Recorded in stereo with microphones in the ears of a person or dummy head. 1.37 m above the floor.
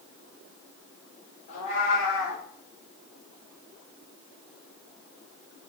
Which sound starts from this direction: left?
A cat meowing, at 1.5 s.